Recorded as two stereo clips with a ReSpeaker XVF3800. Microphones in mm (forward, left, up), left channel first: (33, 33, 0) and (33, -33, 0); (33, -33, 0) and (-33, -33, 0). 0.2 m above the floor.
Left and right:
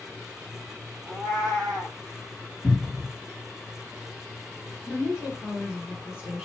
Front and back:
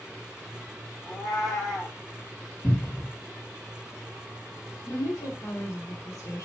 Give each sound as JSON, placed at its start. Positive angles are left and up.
{"t": 1.1, "sound": "a cat meowing", "azimuth_deg": -90, "distance_m": 3.5}
{"t": 2.6, "sound": "a cupboard door", "azimuth_deg": -5, "distance_m": 1.7}
{"t": 4.8, "sound": "a woman speaking", "azimuth_deg": -20, "distance_m": 3.0}